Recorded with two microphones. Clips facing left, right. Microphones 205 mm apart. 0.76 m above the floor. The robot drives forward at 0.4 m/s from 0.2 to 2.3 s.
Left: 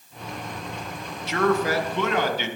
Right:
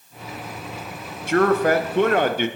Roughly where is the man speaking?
Right.